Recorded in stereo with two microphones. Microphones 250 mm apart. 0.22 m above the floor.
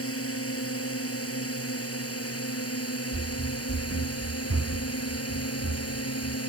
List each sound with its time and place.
0.0 s a drone: 65° left (ahead or behind); by 6.5 s 70° left (ahead or behind)
3.1 s running footsteps: 30° right (ahead or behind); by 6.4 s 80° right